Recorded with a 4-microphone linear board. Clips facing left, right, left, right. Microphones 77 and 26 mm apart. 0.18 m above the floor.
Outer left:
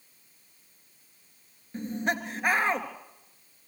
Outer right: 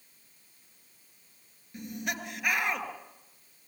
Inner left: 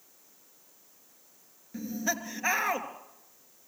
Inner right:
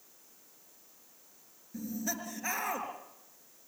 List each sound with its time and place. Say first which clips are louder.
1.7 s laughter: outer left 6 dB, inner left 5 dB; 35° left (ahead or behind), 3 m